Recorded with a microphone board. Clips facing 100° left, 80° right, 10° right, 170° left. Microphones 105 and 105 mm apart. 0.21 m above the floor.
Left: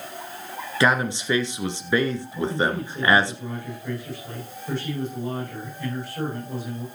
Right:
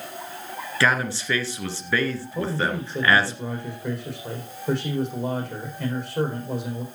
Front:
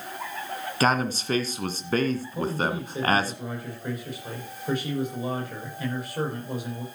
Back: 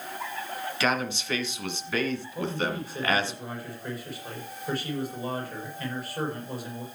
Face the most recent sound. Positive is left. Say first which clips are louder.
# left 2 dB, front 2 dB
turn(degrees=-85)